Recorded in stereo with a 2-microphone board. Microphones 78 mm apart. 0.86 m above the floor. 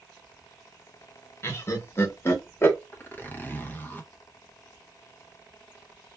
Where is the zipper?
25° left (ahead or behind), 0.6 m.